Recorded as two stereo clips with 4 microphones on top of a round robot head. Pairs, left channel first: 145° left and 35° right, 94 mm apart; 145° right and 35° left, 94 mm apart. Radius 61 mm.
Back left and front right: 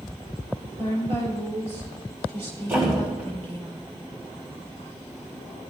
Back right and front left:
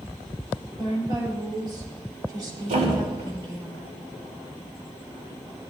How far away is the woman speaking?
About 5.5 m.